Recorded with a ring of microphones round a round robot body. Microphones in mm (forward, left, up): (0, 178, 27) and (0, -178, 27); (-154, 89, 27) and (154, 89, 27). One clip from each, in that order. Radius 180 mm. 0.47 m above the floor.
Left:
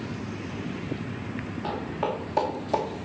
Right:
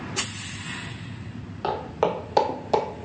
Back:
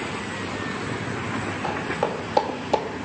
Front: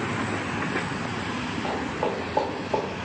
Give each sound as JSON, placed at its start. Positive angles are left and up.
{"t": 1.6, "sound": "footsteps", "azimuth_deg": -135, "distance_m": 1.6}